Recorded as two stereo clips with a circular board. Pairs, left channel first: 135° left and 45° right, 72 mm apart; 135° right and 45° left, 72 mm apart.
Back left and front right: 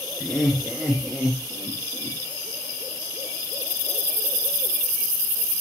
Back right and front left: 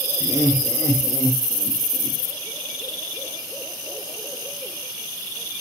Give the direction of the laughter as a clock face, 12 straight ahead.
5 o'clock.